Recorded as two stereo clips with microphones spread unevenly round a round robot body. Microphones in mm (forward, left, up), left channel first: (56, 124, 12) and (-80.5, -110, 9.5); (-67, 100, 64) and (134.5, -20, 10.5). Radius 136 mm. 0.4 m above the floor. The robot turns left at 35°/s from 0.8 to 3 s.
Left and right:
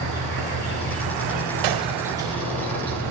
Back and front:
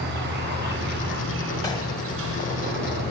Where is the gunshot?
130° right, 0.6 m; by 2.0 s 145° right, 0.6 m.